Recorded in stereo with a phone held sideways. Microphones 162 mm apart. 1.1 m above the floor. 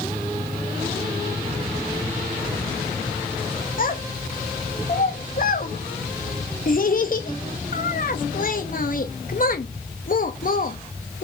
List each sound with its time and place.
3.8 s a child speaking: 60° left (ahead or behind), 0.9 m